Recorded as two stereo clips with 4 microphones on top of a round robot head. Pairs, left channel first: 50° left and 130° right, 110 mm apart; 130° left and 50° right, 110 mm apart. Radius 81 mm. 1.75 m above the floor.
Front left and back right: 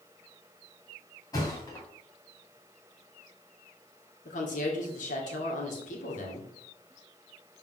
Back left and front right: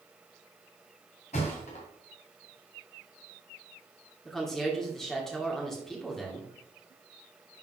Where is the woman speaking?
45° left, 2 m.